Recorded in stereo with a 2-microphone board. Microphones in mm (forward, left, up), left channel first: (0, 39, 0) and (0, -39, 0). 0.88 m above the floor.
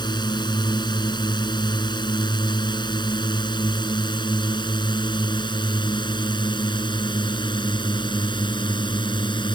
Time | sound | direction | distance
0.0 | a drone | 70° left (ahead or behind) | ?